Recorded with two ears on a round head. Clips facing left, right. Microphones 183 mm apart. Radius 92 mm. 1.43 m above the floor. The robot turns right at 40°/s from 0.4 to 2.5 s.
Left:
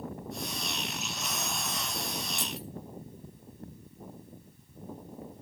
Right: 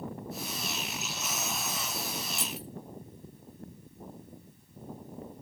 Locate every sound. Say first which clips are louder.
2.3 s keys jangling: left 1 dB; 50° right (ahead or behind), 2.5 m; by 2.7 s 45° right (ahead or behind), 2.5 m